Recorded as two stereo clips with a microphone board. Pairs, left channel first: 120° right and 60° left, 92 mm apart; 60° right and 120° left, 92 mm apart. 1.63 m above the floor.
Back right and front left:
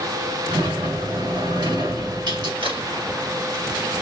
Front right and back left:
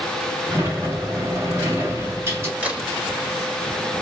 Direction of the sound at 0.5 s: 65° left.